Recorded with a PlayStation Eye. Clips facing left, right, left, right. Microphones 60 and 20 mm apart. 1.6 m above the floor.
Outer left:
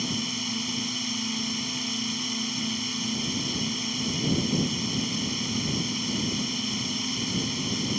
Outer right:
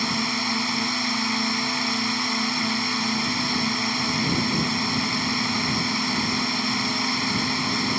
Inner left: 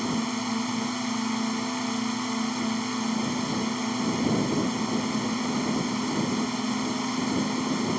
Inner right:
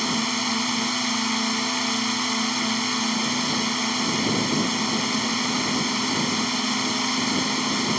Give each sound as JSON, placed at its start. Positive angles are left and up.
{"t": 0.0, "sound": "a drone", "side_deg": -60}